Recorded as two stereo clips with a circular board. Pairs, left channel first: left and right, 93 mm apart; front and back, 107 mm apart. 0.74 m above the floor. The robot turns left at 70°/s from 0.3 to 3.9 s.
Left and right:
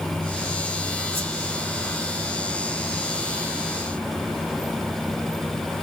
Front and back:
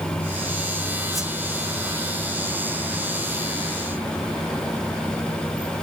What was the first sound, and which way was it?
A whoosh, 90° right.